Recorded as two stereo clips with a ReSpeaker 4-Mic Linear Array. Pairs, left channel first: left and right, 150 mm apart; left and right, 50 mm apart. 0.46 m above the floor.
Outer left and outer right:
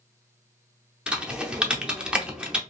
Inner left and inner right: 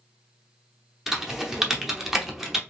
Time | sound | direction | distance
1.1 | typing on a keyboard | 5° right (ahead or behind) | 0.6 m